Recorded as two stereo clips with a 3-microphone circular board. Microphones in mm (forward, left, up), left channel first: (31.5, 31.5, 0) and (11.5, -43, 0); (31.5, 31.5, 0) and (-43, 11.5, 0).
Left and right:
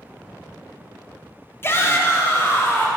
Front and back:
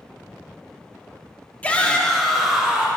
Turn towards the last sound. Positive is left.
turn(degrees=120)